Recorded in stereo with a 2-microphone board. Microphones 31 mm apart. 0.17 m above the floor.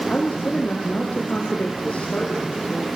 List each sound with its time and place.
0.1 s a woman speaking: 45° left (ahead or behind), 5.5 m